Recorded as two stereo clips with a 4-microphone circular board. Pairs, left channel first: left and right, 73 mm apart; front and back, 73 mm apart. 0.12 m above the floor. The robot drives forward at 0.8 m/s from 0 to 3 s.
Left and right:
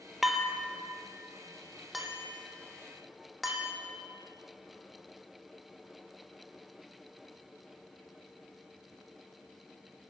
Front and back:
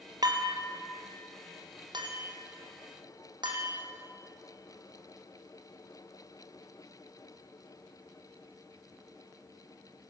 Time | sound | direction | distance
0.2 | dishes clattering | 175° right | 1.9 m